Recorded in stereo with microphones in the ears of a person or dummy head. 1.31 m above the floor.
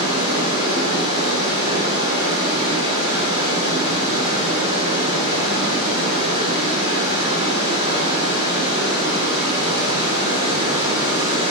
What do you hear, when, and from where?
0.0 s running water: 35° right (ahead or behind), 7.5 m